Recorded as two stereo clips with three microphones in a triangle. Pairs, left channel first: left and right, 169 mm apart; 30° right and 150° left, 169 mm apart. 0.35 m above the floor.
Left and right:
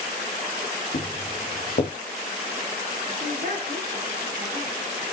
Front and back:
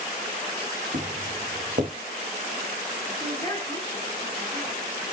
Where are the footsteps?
120° left, 2.5 m.